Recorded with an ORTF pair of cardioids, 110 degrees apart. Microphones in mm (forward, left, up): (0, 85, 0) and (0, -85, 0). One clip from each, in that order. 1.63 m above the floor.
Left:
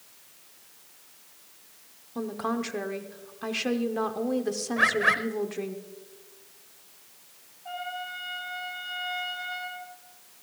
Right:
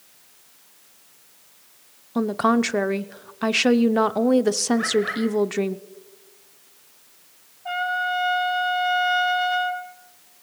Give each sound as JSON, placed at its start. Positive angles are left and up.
{"t": 2.1, "sound": "a woman speaking", "azimuth_deg": -45, "distance_m": 0.7}
{"t": 4.8, "sound": "a bird", "azimuth_deg": 50, "distance_m": 1.3}
{"t": 7.7, "sound": "a trumpet", "azimuth_deg": -50, "distance_m": 6.0}